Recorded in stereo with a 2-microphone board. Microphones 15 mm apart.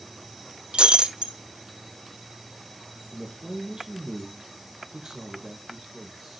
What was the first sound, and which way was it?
Breaking glass, 85° right.